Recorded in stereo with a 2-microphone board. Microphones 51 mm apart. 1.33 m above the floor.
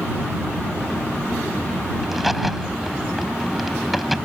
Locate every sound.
2.0 s a crack: 5° right (ahead or behind)